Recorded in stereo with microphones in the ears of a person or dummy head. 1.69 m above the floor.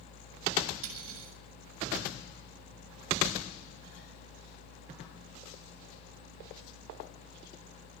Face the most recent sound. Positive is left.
turn(degrees=-85)